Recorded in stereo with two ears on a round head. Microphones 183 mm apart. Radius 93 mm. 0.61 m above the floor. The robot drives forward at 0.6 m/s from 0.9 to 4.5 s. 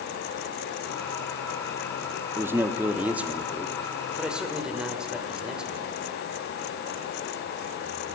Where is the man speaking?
10° right (ahead or behind), 0.6 m; by 5.9 s 5° right (ahead or behind), 1.7 m.